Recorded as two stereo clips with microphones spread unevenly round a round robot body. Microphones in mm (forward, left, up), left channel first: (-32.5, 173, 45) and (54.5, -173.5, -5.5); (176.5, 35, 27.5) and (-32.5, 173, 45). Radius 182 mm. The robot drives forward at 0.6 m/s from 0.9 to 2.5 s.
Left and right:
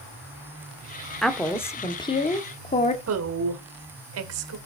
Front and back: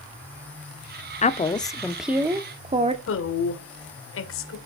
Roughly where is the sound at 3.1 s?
Ahead right.